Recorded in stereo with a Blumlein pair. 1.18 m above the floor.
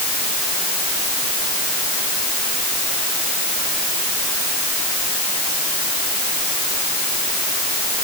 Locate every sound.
Only background noise.